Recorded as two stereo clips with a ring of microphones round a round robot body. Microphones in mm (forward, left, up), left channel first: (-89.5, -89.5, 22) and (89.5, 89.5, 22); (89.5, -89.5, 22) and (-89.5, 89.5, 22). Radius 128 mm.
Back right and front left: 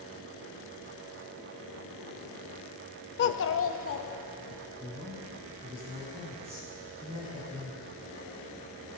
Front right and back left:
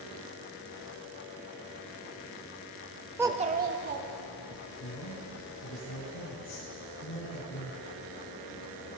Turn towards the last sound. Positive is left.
turn(degrees=-20)